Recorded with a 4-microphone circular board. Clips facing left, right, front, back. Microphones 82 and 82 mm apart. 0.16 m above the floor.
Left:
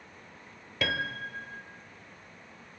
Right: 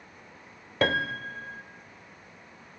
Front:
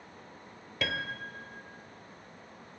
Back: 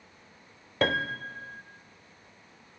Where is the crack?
I don't hear a crack.